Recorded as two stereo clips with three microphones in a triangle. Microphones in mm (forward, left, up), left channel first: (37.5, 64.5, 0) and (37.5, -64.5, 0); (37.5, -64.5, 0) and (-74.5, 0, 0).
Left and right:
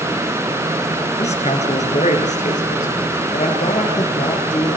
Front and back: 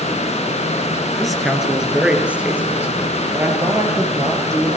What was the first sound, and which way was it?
A man speaking, 60° left.